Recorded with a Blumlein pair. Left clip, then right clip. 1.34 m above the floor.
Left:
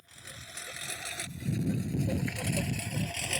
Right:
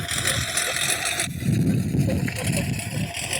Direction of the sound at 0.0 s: 45° right.